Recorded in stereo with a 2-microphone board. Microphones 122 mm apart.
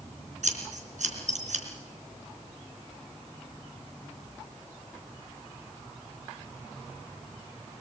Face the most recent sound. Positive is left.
turn(degrees=-80)